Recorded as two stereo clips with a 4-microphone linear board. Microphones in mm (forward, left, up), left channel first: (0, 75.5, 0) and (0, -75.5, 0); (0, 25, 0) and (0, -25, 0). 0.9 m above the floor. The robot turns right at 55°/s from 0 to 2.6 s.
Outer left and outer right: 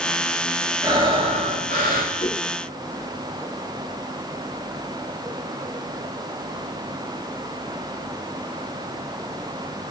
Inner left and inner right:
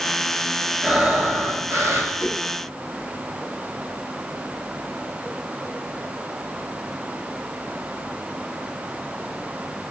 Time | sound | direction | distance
0.8 | breathing | 160° right | 6.5 m
2.2 | a whoosh | 80° left | 4.5 m